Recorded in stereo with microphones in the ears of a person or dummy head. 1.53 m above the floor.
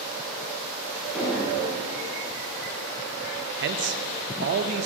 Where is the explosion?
5° right (ahead or behind), 2.5 m.